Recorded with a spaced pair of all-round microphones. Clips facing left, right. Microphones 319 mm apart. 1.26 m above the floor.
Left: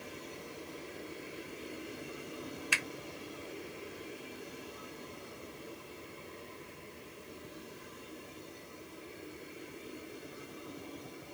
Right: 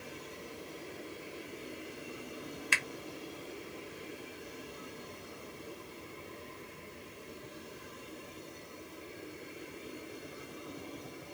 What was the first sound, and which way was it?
A finger snap, 25° right (ahead or behind).